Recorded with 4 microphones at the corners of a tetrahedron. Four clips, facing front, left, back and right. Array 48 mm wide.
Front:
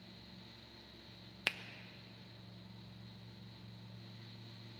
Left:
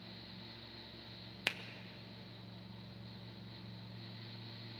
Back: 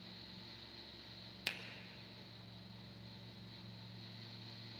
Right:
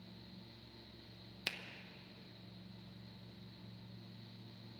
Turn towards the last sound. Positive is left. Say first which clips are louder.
# left 4 dB, front 5 dB
turn(degrees=45)